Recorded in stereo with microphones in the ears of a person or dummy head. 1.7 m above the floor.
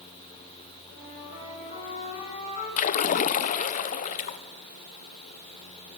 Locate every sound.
0.9 s a flute: 45° left (ahead or behind), 8 m
2.8 s a splash: 35° left (ahead or behind), 0.9 m